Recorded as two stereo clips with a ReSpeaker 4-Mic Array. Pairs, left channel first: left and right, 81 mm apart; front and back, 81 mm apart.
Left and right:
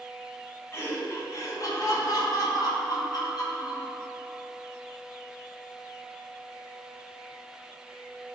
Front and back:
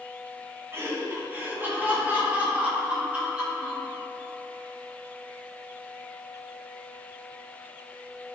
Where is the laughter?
135° left, 2.5 m; by 3.9 s 100° left, 4 m.